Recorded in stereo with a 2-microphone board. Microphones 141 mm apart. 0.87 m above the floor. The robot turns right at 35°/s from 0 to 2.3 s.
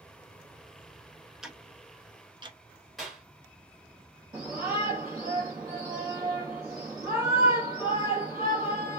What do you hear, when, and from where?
1.4 s ticking: centre (ahead or behind), 0.6 m; by 2.6 s 30° right (ahead or behind), 0.6 m
3.0 s a clap: centre (ahead or behind), 1.6 m
4.3 s a shout: 25° right (ahead or behind), 1.3 m